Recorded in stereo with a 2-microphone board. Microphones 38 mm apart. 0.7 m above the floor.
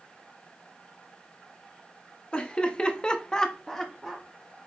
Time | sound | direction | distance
2.3 | laughter | 25° left (ahead or behind) | 0.9 m